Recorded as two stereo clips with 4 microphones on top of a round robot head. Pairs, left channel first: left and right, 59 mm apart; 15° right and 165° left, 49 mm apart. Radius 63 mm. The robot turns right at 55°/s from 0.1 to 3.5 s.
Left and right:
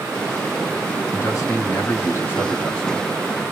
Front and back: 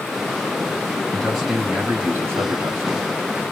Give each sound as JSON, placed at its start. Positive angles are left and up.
{"t": 1.1, "sound": "a man speaking", "azimuth_deg": 75, "distance_m": 2.0}